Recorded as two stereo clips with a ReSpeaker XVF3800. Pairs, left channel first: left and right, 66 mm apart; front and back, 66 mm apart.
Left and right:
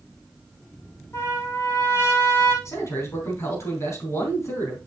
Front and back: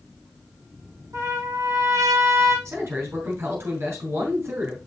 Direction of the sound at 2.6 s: 135° left.